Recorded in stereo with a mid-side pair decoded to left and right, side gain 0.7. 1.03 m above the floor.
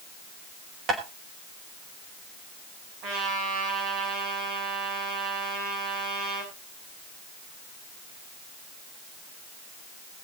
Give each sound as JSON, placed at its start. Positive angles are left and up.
{"t": 0.9, "sound": "tapping", "azimuth_deg": -40, "distance_m": 5.0}
{"t": 3.0, "sound": "a trumpet", "azimuth_deg": -65, "distance_m": 7.0}